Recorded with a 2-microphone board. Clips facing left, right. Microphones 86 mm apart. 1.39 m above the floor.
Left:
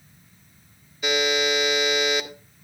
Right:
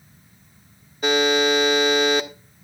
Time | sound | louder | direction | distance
1.0 | a buzzer | right 5 dB | 45° right (ahead or behind) | 1.7 m